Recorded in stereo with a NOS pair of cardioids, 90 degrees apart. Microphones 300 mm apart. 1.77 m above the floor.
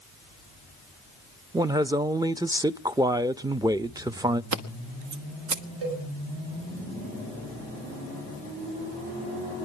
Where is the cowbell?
45° right, 9.5 m.